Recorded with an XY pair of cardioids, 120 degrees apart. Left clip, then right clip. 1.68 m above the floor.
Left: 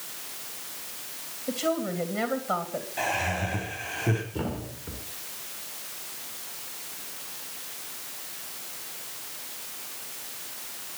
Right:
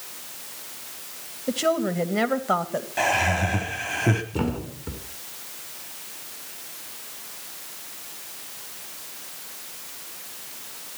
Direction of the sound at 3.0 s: 50° right.